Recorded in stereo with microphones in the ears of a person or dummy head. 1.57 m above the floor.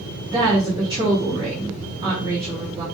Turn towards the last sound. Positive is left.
turn(degrees=-25)  # may be behind; listen again after turning